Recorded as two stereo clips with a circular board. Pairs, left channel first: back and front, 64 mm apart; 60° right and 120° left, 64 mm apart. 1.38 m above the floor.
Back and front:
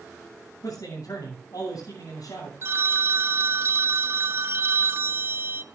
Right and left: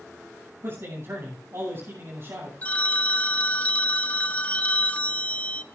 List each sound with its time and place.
0.6 s a man speaking: 160° left, 6.5 m
2.6 s a phone ringing: 10° right, 0.5 m